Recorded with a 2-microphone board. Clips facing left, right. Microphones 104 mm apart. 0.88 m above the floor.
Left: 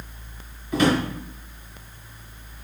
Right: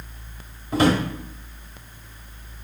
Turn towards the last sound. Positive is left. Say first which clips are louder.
# right 1 dB
turn(degrees=-35)  # may be behind; listen again after turning